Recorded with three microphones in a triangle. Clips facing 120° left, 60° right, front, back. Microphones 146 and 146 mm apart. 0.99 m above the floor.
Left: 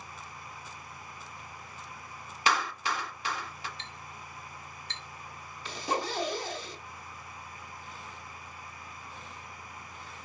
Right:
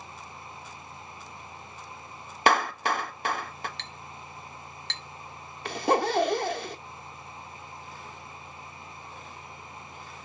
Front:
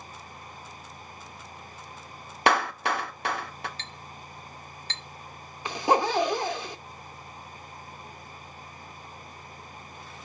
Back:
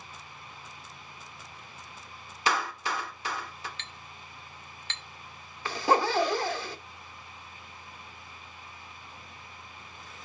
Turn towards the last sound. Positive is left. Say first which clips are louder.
# right 8 dB, front 1 dB
turn(degrees=-70)